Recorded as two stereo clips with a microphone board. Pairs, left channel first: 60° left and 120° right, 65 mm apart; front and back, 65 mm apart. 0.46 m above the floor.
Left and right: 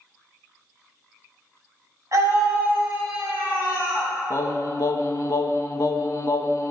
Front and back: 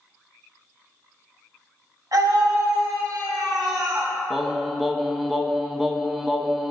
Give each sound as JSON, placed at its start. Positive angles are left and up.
{"t": 2.1, "sound": "a scream", "azimuth_deg": -155, "distance_m": 3.5}
{"t": 4.3, "sound": "singing", "azimuth_deg": 95, "distance_m": 0.6}